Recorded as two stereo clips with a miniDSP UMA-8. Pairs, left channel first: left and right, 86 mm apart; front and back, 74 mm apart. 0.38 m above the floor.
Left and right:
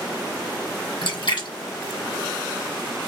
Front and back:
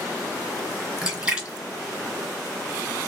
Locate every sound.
1.0 s a splash: 100° left, 1.6 m